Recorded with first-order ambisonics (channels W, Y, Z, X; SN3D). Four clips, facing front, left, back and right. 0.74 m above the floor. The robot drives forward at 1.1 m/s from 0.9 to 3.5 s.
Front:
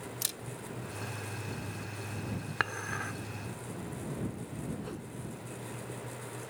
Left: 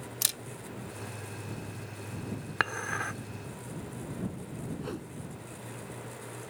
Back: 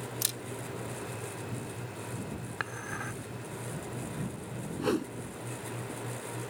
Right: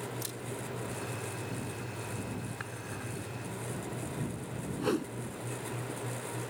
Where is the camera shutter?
100° left.